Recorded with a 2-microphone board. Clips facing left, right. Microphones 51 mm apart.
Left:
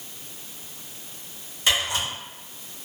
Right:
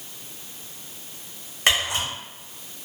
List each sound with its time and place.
1.7 s a camera shutter: 55° right (ahead or behind), 1.2 m